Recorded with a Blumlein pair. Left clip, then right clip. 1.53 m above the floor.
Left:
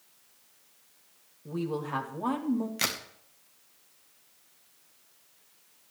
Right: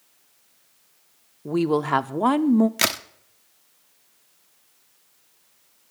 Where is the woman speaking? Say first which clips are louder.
Right 12 dB; 60° right, 0.6 m.